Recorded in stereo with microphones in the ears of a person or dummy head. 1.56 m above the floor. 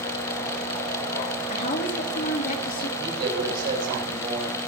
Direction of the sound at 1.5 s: 45° left (ahead or behind).